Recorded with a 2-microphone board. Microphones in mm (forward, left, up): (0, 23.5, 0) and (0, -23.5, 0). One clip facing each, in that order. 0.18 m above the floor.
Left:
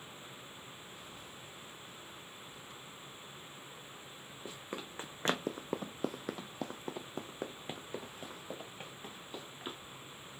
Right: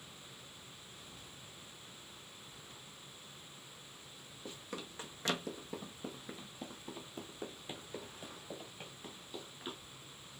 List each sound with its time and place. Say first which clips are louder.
4.5 s running footsteps: left 2 dB; 20° left (ahead or behind), 1.0 m